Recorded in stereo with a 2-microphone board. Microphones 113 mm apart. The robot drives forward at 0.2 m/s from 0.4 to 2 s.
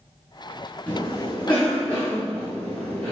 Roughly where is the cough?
Centre.